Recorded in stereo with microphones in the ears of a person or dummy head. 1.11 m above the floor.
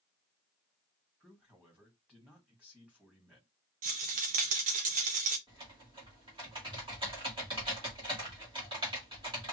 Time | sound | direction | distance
1.2 | a man speaking | centre (ahead or behind) | 2 m
3.8 | a rattle | 35° right (ahead or behind) | 0.6 m
5.5 | typing on a keyboard | 15° right (ahead or behind) | 1.9 m